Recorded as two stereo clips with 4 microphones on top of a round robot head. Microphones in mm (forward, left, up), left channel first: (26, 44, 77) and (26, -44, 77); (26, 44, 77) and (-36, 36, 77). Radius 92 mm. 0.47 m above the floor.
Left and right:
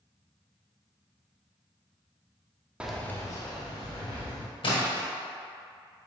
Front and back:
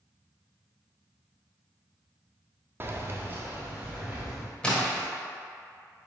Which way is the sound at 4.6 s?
80° left.